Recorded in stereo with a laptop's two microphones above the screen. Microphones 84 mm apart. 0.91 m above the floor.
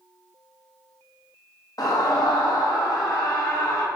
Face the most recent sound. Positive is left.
turn(degrees=45)  # may be behind; listen again after turning